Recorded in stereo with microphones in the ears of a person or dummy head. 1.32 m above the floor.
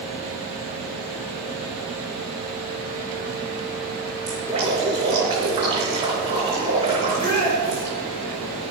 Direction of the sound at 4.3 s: 30° right (ahead or behind).